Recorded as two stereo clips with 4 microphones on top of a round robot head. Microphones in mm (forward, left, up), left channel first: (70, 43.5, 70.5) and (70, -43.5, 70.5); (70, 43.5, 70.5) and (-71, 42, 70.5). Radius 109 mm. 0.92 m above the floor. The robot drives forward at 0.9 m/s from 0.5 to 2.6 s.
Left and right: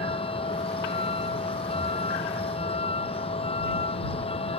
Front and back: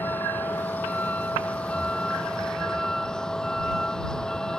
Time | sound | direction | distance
0.0 | a vehicle | 80° left | ?